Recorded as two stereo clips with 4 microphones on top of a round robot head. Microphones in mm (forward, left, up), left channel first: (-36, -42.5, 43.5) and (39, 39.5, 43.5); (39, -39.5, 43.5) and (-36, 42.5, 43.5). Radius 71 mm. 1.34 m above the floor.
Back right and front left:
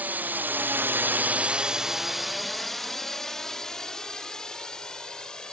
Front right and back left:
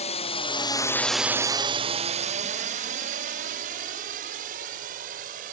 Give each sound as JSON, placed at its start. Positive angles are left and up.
{"t": 0.0, "sound": "a drone", "azimuth_deg": -30}